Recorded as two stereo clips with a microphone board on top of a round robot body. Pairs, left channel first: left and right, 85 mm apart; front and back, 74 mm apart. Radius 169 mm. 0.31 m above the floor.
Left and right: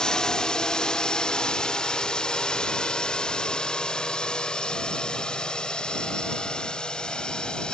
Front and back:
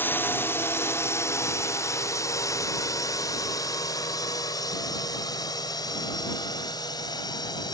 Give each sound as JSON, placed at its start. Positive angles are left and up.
{"t": 0.0, "sound": "a drone", "azimuth_deg": 15}